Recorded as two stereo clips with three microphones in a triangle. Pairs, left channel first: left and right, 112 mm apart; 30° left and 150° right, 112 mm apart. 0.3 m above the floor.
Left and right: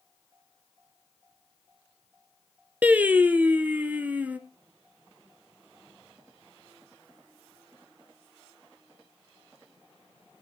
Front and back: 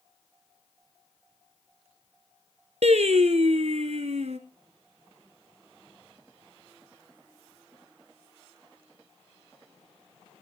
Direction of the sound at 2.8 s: 165° right.